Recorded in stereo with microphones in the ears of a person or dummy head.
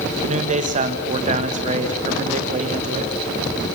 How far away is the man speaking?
About 1.5 m.